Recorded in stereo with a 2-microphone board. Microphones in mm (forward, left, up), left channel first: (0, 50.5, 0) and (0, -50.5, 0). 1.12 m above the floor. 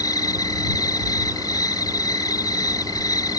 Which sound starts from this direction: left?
An insect, at 0.0 s.